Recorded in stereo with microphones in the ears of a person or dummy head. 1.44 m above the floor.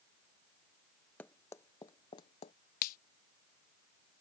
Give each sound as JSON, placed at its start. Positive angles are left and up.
{"t": 1.2, "sound": "running footsteps", "side_deg": 10}
{"t": 2.8, "sound": "a finger snap", "side_deg": 50}